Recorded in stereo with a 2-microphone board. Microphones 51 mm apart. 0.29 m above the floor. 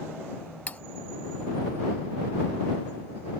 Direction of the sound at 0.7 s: 30° left (ahead or behind).